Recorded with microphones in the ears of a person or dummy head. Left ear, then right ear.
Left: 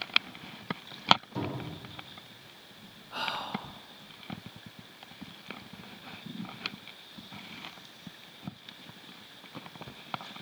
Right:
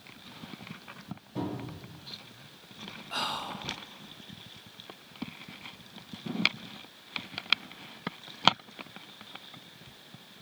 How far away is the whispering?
About 0.9 m.